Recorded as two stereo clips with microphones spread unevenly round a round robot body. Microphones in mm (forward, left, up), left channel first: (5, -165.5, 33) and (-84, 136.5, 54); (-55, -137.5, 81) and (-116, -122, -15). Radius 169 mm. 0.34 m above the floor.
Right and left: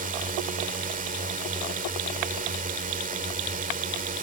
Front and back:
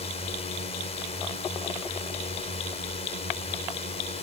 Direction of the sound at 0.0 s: 75° left.